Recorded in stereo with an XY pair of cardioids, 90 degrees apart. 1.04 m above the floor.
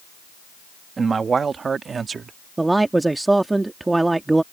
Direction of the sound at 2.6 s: 20° right.